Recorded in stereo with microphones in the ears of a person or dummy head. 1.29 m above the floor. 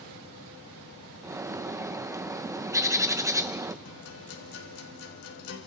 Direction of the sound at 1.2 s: 20° right (ahead or behind).